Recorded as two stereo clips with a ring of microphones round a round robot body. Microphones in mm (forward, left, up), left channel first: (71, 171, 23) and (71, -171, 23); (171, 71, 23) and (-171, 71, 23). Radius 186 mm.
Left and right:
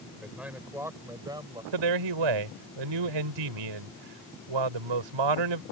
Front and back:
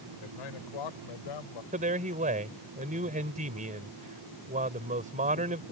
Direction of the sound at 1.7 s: 110° right.